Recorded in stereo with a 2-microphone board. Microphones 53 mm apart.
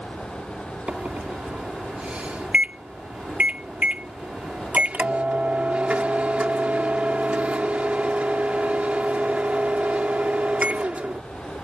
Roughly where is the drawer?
I don't hear a drawer.